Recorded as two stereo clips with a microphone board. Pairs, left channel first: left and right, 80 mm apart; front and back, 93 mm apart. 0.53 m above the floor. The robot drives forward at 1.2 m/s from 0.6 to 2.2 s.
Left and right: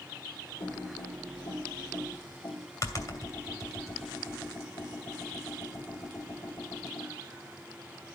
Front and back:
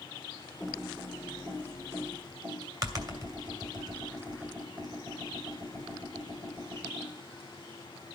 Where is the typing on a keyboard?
85° left, 2.0 m; by 7.1 s 135° left, 2.5 m.